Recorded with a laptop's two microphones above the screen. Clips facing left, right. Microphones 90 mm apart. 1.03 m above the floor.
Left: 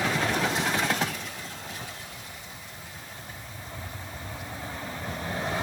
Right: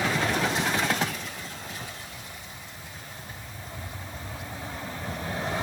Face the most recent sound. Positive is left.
No sound to turn to.